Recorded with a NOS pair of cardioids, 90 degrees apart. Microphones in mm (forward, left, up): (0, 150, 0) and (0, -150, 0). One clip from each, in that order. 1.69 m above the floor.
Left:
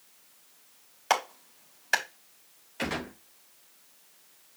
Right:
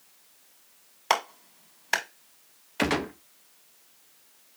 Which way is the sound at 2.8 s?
55° right.